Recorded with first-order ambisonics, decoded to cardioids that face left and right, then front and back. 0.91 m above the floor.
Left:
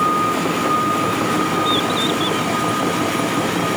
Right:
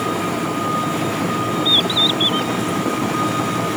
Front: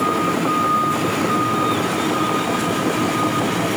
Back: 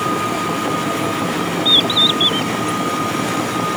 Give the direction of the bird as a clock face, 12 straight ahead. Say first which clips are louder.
Right 3 dB, back 7 dB; 5 o'clock.